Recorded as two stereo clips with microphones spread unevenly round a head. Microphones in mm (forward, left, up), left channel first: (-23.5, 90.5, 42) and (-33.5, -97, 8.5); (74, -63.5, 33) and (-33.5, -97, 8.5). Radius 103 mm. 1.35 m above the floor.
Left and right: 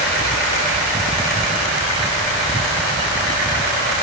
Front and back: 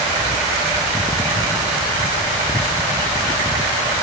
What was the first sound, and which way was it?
Only background noise.